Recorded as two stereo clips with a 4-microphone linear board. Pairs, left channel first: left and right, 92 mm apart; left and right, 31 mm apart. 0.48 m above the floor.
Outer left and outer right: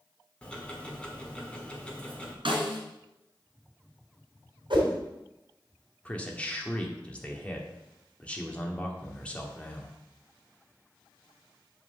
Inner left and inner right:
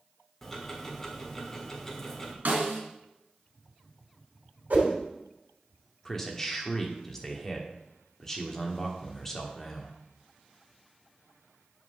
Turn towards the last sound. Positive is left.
turn(degrees=15)  # may be behind; listen again after turning